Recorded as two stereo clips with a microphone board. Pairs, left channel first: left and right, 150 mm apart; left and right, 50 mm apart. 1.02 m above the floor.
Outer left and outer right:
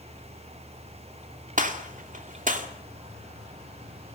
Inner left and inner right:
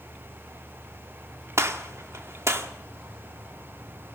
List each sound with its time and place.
1.6 s a gunshot: 60° right (ahead or behind), 2 m